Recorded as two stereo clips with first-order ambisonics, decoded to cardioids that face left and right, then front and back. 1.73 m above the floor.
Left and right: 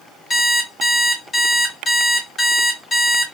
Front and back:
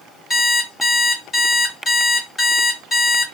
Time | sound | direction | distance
0.3 | an alarm clock | 50° left | 1.2 m